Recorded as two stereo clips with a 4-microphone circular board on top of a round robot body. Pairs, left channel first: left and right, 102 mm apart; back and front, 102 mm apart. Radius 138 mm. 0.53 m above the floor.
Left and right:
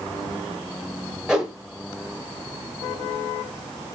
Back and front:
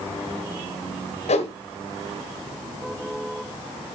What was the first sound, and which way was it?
A whoosh, 175° right.